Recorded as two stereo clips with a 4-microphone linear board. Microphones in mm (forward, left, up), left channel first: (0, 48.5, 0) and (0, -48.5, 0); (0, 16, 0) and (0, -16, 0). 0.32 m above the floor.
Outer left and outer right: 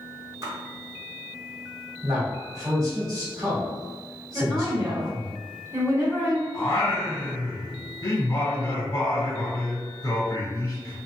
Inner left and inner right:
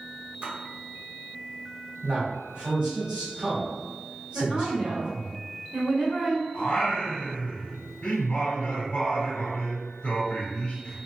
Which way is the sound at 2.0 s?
35° right (ahead or behind).